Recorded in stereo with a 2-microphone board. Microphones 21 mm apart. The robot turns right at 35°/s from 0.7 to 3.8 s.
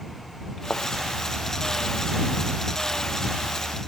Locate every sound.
0.7 s a thud: 65° left (ahead or behind); by 0.8 s 60° left (ahead or behind)